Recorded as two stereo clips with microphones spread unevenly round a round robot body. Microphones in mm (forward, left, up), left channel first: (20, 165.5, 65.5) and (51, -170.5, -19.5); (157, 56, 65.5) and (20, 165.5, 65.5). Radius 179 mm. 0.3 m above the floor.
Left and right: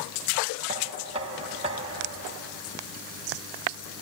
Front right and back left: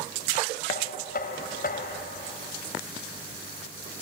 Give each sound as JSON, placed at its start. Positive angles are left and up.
{"t": 0.7, "sound": "knocking", "azimuth_deg": -25, "distance_m": 1.8}